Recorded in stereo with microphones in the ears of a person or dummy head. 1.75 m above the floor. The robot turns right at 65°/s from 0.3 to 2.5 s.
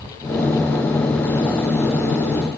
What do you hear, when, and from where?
Only background noise.